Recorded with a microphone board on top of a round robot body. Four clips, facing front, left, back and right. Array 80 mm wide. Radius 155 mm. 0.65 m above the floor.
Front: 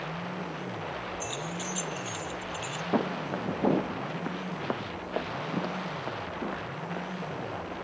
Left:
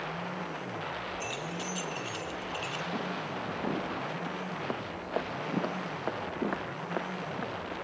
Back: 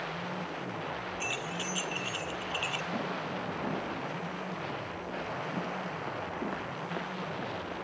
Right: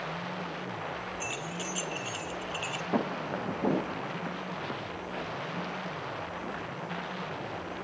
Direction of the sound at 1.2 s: 170° right.